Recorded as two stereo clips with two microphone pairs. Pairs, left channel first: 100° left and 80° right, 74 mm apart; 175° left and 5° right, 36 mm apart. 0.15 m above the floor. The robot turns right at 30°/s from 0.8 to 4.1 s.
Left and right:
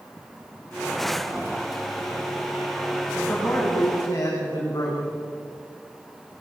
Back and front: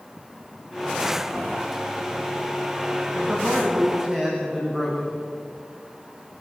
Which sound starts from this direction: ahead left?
A man speaking, at 3.2 s.